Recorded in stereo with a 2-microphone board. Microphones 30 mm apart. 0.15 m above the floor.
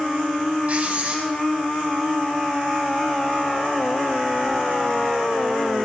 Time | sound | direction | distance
0.7 | writing | 45° right (ahead or behind) | 7 m